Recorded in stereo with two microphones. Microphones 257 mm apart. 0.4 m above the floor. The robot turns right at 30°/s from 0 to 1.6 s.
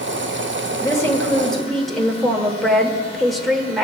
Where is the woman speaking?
15° left (ahead or behind), 1.0 m; by 3.8 s centre (ahead or behind), 1.0 m.